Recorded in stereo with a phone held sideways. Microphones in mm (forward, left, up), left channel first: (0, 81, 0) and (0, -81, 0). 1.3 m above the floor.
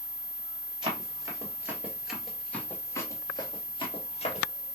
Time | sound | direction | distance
0.8 | running footsteps | 30° right (ahead or behind) | 1.8 m